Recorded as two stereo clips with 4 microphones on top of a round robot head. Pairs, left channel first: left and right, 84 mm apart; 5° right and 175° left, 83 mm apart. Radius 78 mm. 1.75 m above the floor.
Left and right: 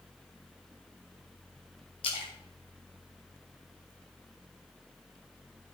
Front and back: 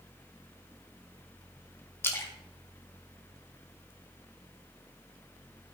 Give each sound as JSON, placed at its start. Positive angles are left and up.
{"t": 2.0, "sound": "a splash", "azimuth_deg": 55, "distance_m": 2.0}